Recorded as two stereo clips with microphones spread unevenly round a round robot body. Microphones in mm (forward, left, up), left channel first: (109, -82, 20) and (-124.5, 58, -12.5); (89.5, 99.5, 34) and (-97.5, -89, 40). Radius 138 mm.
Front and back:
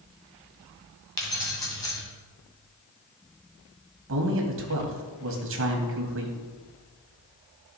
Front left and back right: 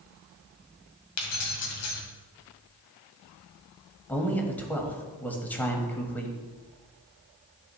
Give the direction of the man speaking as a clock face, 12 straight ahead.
8 o'clock.